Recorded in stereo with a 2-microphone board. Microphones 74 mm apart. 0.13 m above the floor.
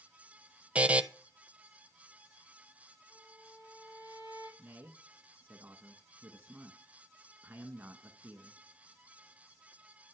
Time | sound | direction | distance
0.8 | a buzzer | 15° right (ahead or behind) | 0.7 m
3.1 | a violin | 55° left (ahead or behind) | 4 m
4.6 | a man speaking | 25° right (ahead or behind) | 1.2 m